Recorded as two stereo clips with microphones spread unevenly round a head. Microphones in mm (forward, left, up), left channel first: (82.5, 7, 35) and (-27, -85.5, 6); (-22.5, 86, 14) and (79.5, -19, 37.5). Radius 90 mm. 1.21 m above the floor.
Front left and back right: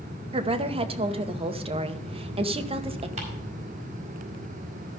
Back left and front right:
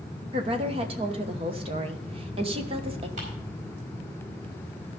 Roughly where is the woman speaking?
Right.